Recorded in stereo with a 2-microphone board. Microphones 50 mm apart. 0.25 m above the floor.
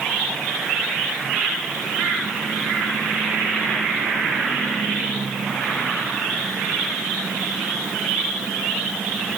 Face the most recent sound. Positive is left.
No sound to turn to.